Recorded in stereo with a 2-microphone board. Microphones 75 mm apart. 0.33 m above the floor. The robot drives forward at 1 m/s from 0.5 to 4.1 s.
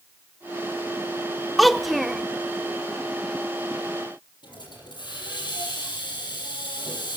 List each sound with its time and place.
1.6 s a child speaking: centre (ahead or behind), 0.5 m
4.4 s a hiss: 75° left (ahead or behind), 5.5 m